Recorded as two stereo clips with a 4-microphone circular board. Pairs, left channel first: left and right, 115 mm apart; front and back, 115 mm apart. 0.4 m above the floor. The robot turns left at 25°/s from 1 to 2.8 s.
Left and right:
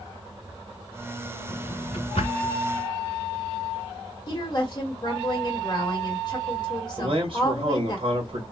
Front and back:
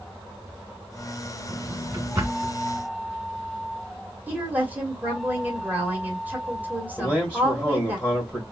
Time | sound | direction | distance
1.5 | a drawer | 135° left | 1.9 m
4.3 | a woman speaking | 115° left | 1.6 m
7.0 | a man speaking | 85° right | 1.3 m